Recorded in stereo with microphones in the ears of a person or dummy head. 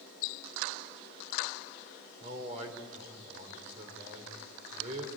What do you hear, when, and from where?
2.2 s a man speaking: 40° right (ahead or behind), 4.5 m